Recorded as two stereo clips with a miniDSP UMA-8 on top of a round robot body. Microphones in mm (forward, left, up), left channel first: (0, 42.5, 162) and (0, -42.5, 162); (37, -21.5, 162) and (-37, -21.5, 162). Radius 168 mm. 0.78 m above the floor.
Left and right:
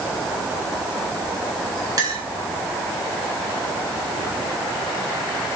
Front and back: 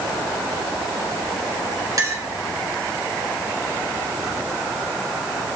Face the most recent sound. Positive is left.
turn(degrees=-135)